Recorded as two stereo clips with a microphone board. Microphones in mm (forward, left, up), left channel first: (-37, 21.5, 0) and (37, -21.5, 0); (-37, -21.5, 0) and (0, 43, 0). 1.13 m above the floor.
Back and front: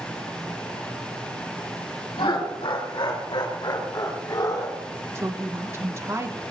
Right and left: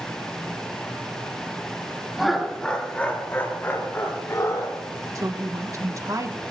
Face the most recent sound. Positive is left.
turn(degrees=25)